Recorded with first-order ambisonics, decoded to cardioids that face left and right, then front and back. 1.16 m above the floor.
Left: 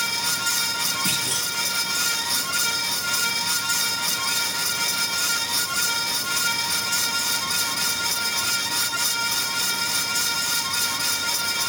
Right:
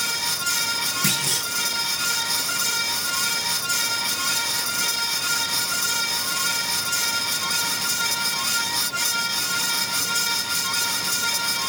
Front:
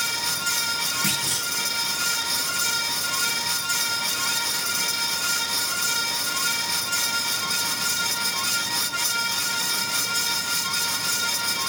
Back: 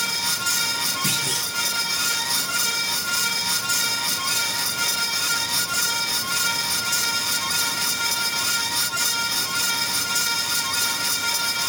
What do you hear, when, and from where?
1.0 s a clunk: 80° right, 8 m